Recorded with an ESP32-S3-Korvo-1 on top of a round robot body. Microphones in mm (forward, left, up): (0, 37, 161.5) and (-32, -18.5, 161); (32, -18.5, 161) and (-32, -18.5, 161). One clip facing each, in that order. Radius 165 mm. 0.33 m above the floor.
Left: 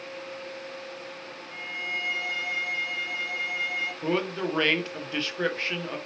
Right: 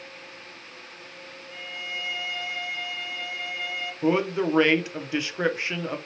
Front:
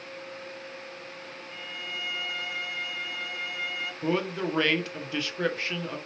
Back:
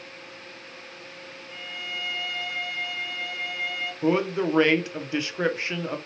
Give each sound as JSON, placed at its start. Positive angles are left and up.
{"t": 1.5, "sound": "a violin", "azimuth_deg": 80, "distance_m": 1.4}
{"t": 4.0, "sound": "a man speaking", "azimuth_deg": -165, "distance_m": 0.8}